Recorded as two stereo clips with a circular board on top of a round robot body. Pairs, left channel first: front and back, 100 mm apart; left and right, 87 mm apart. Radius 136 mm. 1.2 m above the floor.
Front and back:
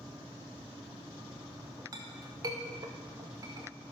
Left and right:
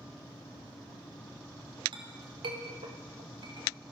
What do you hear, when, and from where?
1.9 s a clink: 125° right, 1.0 m